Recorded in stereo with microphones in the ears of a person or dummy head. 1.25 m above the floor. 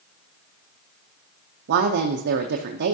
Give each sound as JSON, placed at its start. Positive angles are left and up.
{"t": 1.7, "sound": "a woman speaking", "side_deg": -60, "distance_m": 0.6}